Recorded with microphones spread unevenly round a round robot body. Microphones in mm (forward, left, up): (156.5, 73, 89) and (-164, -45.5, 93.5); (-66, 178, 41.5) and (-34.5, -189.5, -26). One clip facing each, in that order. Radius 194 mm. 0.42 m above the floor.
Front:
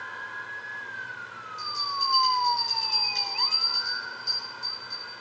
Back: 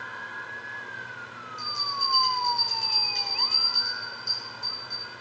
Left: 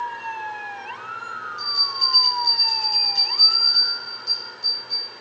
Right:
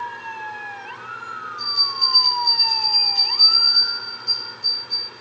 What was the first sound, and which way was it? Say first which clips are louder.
A bell: front 2 dB, right 1 dB; 95° left.